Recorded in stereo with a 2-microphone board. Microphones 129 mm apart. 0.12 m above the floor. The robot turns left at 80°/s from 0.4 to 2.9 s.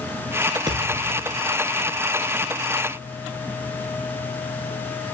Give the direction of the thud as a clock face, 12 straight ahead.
1 o'clock.